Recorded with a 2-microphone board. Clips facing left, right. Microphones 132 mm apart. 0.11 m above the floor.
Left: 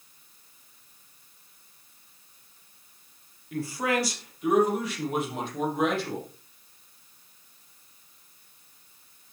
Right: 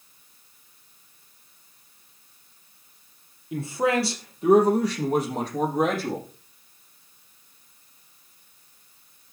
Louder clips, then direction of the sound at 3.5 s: Right 4 dB; 20° right (ahead or behind).